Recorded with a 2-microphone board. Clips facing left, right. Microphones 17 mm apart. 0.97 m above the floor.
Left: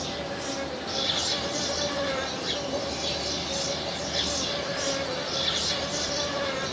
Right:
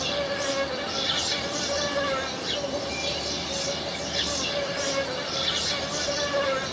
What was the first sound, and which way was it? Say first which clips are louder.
An insect: right 5 dB; 70° right (ahead or behind).